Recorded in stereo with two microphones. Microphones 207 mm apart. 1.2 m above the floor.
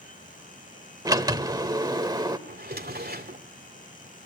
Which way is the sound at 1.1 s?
20° right (ahead or behind).